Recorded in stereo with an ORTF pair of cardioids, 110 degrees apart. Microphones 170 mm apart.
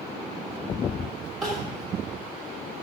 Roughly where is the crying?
Ahead.